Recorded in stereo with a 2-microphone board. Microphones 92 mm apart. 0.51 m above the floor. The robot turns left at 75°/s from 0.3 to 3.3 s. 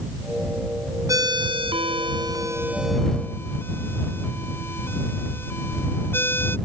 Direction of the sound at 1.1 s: 40° right (ahead or behind).